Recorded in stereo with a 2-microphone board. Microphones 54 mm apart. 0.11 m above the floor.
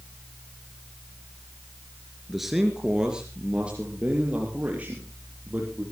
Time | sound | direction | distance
2.3 | a man speaking | centre (ahead or behind) | 2 m